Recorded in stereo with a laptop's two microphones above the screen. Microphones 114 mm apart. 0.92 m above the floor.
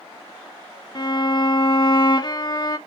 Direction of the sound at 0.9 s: 40° left (ahead or behind).